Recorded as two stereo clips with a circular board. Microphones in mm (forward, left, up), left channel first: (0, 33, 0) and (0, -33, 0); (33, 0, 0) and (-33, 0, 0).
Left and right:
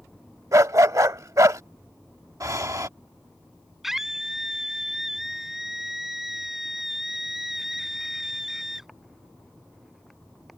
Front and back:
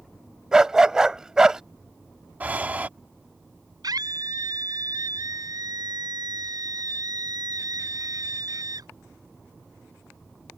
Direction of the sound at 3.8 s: 175° right.